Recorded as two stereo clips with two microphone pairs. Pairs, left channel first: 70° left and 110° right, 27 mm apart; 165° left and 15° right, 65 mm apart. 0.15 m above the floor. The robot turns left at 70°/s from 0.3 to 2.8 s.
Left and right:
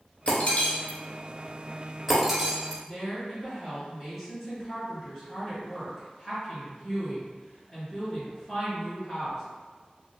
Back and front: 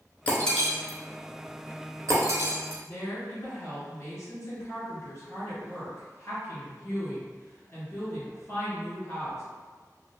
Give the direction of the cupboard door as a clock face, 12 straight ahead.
I don't hear a cupboard door.